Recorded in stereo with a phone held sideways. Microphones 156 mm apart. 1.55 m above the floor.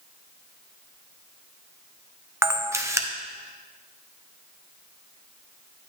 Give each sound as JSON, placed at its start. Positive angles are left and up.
{"t": 2.4, "sound": "a camera shutter", "side_deg": -20, "distance_m": 0.8}